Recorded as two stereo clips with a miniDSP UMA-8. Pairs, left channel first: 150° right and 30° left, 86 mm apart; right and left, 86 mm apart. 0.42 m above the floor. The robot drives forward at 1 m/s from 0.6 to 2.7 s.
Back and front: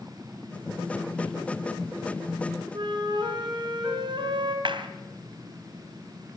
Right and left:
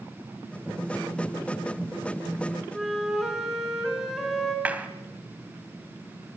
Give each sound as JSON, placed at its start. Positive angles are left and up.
{"t": 2.7, "sound": "a flute", "azimuth_deg": 0, "distance_m": 5.0}
{"t": 4.7, "sound": "a clap", "azimuth_deg": 15, "distance_m": 2.0}